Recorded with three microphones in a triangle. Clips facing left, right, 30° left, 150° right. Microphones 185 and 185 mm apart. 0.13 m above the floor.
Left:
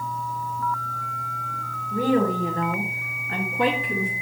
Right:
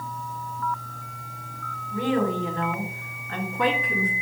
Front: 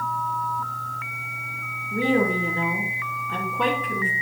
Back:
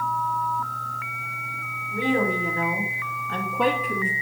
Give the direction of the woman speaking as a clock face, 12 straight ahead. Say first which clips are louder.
Left 3 dB, front 2 dB; 10 o'clock.